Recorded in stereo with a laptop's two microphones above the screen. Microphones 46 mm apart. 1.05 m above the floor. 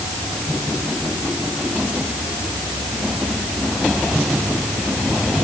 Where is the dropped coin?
I don't hear a dropped coin.